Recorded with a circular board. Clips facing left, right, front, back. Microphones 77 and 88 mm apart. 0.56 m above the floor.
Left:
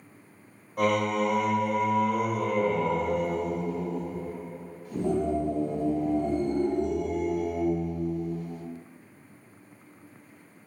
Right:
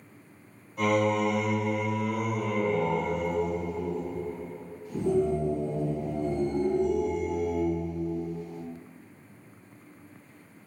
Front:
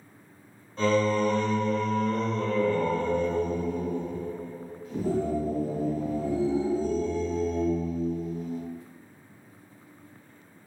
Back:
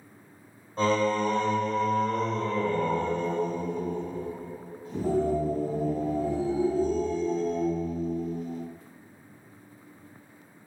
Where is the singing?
130° left, 0.7 m.